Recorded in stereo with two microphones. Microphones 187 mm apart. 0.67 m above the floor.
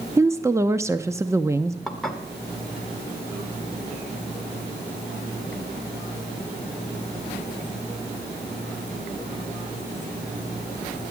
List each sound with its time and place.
0.2 s a woman speaking: 15° right (ahead or behind), 0.6 m
1.9 s dishes clattering: centre (ahead or behind), 1.4 m